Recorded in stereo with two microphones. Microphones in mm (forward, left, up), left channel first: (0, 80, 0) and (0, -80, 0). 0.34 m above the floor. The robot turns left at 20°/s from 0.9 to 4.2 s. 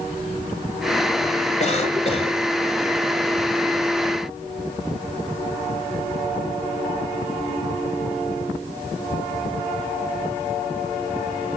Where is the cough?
45° left (ahead or behind), 2 m; by 2.4 s 35° left (ahead or behind), 2 m.